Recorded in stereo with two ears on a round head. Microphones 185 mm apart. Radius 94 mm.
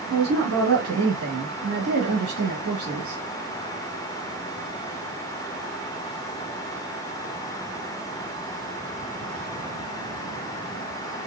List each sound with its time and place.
0.1 s a woman speaking: 85° right, 1.6 m